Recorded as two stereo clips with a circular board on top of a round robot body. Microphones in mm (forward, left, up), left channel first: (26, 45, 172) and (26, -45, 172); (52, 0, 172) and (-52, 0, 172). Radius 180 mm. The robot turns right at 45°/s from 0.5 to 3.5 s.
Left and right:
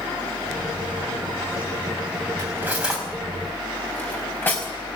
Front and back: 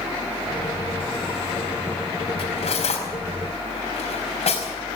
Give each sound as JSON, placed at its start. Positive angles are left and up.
{"t": 2.4, "sound": "cutlery clinking", "azimuth_deg": -30, "distance_m": 5.0}